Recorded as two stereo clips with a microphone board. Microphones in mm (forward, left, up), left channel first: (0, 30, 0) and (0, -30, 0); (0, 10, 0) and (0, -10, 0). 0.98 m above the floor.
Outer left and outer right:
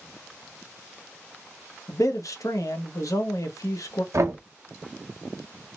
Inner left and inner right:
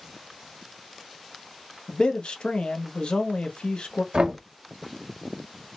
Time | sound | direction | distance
1.9 | a man speaking | 75° left (ahead or behind) | 0.8 m
4.1 | knocking | 60° right (ahead or behind) | 0.8 m